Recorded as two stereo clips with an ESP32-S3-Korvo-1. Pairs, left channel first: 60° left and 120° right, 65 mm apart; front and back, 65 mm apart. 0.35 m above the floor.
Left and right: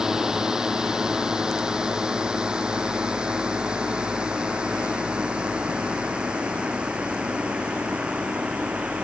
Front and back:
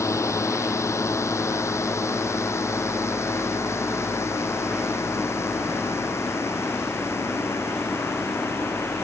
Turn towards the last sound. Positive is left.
turn(degrees=-45)